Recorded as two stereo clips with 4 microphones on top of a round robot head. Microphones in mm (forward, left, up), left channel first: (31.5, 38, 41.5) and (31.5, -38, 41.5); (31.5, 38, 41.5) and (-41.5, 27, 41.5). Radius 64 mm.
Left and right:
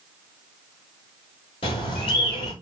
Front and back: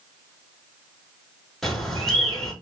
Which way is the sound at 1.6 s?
100° left.